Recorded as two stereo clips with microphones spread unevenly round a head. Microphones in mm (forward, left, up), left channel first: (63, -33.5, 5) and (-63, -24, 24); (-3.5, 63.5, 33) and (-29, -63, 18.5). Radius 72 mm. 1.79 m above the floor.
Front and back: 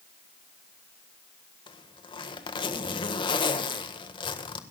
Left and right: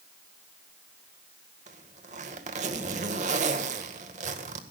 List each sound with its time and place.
1.7 s a zipper: 60° right, 1.6 m